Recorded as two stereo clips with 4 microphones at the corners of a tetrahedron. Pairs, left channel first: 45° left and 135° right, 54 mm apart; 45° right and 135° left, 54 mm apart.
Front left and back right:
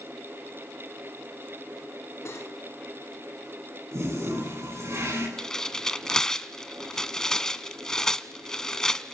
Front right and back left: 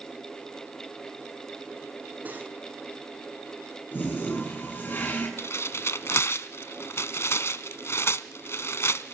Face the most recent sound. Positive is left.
turn(degrees=-35)